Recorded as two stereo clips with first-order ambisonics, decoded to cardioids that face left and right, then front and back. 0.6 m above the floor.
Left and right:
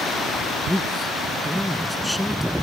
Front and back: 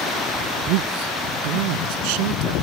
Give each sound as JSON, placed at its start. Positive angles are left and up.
{"t": 0.7, "sound": "a man speaking", "azimuth_deg": 175}